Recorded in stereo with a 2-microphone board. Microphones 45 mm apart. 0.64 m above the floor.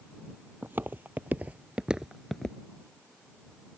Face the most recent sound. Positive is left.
turn(degrees=15)  # may be behind; listen again after turning